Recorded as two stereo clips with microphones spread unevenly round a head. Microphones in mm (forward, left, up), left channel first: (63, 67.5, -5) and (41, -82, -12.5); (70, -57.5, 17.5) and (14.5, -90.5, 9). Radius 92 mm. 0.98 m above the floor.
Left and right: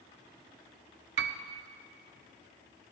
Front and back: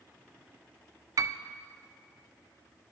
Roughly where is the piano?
Behind right.